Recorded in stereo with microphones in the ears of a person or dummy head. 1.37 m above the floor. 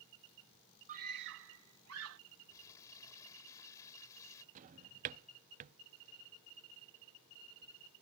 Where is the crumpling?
20° left (ahead or behind).